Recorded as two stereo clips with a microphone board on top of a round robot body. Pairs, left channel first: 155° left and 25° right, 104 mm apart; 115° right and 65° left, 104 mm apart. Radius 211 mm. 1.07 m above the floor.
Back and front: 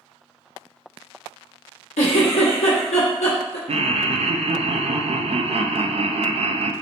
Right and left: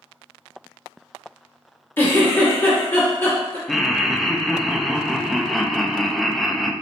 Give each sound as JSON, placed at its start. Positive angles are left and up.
{"t": 2.0, "sound": "a giggle", "azimuth_deg": 175, "distance_m": 0.9}
{"t": 3.7, "sound": "laughter", "azimuth_deg": -25, "distance_m": 0.7}